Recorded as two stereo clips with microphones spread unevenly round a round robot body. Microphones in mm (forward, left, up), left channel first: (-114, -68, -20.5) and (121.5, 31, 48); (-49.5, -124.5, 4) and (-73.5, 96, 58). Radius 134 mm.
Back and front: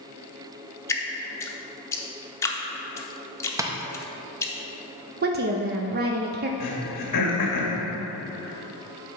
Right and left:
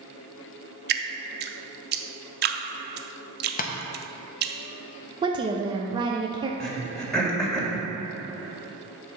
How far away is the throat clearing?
About 1.8 m.